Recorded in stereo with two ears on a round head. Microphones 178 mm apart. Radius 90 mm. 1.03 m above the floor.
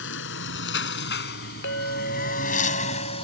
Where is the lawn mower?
70° left (ahead or behind); by 3.2 s 30° left (ahead or behind).